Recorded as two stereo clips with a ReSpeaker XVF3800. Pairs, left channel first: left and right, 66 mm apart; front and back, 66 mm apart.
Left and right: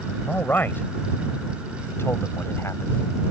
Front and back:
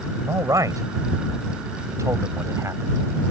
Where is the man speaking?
150° left; by 3.0 s 135° left.